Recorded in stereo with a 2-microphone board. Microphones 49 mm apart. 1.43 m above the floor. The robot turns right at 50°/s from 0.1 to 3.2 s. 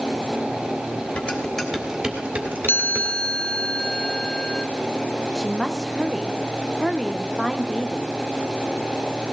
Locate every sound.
1.2 s dishes clattering: 30° left (ahead or behind), 3 m; by 3.1 s 65° right (ahead or behind), 3 m
2.7 s a chime: 45° left (ahead or behind), 0.5 m; by 4.7 s 20° left (ahead or behind), 0.5 m
5.3 s a woman speaking: 5° right (ahead or behind), 1.2 m